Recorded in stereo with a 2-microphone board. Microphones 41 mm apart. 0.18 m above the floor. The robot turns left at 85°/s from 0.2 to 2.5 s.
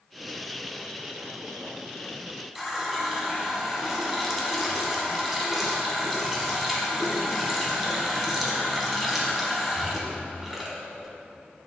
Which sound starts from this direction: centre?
A running tap, at 2.5 s.